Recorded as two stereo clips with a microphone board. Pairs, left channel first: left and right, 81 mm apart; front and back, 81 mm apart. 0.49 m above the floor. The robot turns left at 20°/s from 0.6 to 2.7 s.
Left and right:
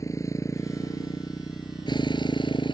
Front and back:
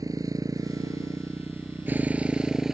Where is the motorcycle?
140° left; by 2.8 s 95° left.